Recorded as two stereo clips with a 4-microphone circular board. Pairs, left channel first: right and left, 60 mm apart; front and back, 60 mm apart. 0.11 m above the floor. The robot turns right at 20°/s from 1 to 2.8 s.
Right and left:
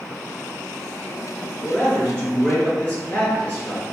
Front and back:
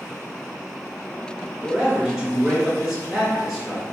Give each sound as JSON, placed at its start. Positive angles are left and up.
{"t": 1.6, "sound": "a man speaking", "azimuth_deg": -130, "distance_m": 1.8}